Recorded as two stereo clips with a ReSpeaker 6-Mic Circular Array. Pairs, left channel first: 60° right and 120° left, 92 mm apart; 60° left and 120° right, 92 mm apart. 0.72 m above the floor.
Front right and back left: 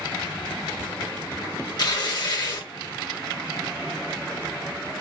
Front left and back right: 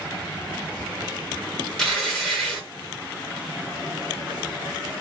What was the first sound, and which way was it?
Tearing paper, 20° right.